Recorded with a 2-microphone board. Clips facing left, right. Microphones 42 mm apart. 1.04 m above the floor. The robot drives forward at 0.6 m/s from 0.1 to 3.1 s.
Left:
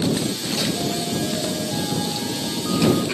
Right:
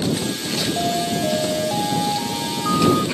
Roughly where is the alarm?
Right.